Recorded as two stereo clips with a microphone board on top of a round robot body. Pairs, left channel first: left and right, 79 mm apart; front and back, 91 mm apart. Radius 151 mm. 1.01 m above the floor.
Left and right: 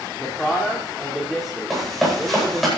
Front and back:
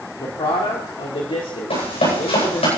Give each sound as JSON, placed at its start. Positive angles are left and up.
{"t": 0.2, "sound": "a man speaking", "azimuth_deg": 10, "distance_m": 2.5}
{"t": 1.7, "sound": "running footsteps", "azimuth_deg": 0, "distance_m": 10.0}